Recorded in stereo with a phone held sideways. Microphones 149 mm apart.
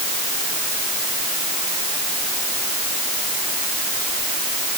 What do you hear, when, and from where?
Only background noise.